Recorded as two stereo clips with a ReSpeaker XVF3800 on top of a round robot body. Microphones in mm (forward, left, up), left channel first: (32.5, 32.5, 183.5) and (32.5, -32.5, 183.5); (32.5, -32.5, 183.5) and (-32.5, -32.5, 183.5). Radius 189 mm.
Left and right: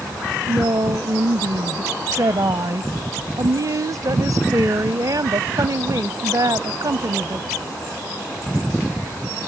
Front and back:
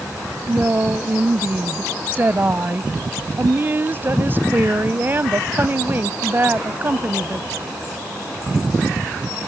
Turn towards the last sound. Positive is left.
turn(degrees=-120)